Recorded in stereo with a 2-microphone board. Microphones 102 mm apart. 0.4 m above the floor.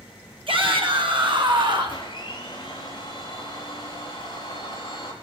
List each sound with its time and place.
0.5 s a shout: 60° right (ahead or behind), 3 m; by 2.0 s 45° right (ahead or behind), 2.5 m
1.9 s a blender: 50° left (ahead or behind), 4 m